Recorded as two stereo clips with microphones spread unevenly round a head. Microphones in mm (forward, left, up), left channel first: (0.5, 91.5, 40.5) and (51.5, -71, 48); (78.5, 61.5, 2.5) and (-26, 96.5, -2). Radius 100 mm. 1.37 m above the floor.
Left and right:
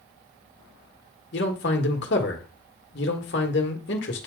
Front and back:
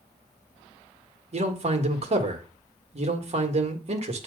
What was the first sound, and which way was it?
A man speaking, 140° left.